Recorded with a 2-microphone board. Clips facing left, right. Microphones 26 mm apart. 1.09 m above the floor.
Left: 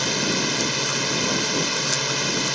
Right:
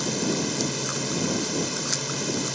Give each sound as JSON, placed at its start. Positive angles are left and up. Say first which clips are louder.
{"t": 0.0, "sound": "a drone", "louder": "left 4 dB", "side_deg": 40}